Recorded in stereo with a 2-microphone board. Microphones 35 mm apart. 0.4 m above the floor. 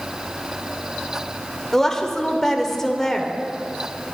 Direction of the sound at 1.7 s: 15° left (ahead or behind).